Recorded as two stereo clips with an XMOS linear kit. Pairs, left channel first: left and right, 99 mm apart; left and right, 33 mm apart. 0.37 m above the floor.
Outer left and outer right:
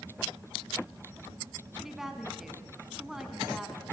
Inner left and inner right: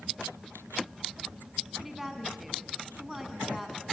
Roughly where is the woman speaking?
Centre.